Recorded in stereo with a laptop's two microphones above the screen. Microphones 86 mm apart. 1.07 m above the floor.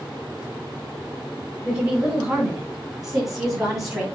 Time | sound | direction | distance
1.6 | a woman speaking | 5° right (ahead or behind) | 5.5 m